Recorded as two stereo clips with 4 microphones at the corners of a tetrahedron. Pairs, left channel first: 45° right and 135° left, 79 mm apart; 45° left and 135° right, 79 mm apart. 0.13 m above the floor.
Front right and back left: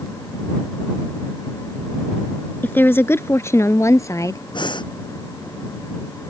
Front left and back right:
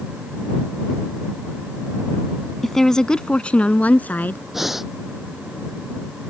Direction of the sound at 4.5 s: 50° right.